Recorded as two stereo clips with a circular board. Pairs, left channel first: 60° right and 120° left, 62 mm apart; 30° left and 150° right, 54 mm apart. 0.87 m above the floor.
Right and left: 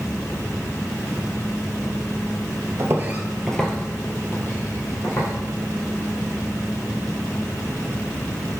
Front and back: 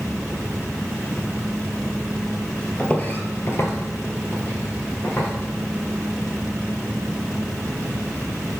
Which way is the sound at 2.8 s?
95° left.